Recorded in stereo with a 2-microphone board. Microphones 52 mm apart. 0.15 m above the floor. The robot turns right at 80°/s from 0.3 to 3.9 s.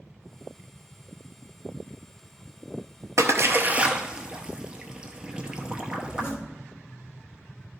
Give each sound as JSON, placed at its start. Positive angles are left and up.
{"t": 3.2, "sound": "a splash", "side_deg": -70, "distance_m": 0.7}
{"t": 6.0, "sound": "a zipper", "side_deg": 45, "distance_m": 1.4}